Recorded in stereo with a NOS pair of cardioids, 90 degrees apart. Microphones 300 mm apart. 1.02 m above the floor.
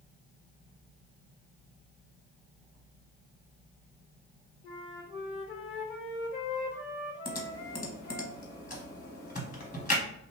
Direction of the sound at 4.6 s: 45° left.